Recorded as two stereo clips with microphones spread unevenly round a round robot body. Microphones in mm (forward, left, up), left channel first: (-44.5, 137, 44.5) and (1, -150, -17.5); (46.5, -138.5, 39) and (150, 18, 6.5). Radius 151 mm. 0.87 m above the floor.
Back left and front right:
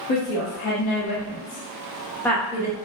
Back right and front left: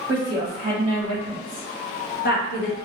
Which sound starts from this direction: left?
A woman speaking, at 0.1 s.